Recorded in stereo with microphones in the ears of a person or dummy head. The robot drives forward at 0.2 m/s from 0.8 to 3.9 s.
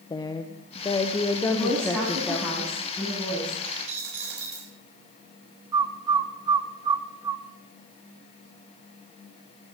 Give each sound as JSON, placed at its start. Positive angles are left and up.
{"t": 0.1, "sound": "a woman speaking", "side_deg": 25, "distance_m": 0.7}
{"t": 1.5, "sound": "a woman speaking", "side_deg": 10, "distance_m": 9.0}
{"t": 3.6, "sound": "a dropped coin", "side_deg": -65, "distance_m": 1.9}
{"t": 5.7, "sound": "a bird", "side_deg": -20, "distance_m": 0.7}